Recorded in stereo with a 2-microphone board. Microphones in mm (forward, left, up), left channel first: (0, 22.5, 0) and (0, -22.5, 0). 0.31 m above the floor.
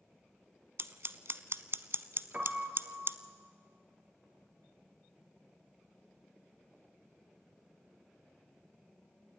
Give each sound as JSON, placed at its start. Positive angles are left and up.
{"t": 0.8, "sound": "scissors", "side_deg": -60, "distance_m": 0.7}
{"t": 2.3, "sound": "a piano", "side_deg": -35, "distance_m": 2.5}